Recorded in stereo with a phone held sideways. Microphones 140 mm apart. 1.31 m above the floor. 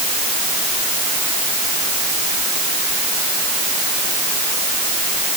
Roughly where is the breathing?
I don't hear breathing.